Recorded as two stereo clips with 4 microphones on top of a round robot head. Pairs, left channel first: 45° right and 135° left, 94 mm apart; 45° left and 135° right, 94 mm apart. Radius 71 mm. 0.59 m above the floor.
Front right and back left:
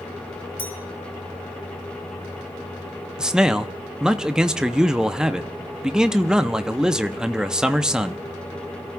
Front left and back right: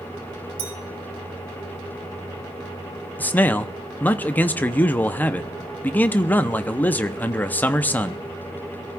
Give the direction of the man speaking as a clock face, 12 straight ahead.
10 o'clock.